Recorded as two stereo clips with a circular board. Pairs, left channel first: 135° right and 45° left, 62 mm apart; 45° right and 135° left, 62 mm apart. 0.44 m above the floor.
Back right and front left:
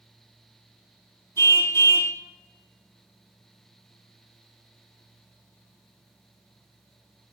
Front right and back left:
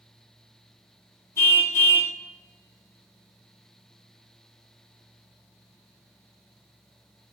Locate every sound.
1.4 s a car horn: 95° right, 2.5 m